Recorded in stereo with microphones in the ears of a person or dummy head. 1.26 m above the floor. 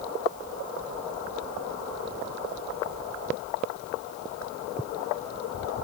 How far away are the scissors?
No scissors in this recording.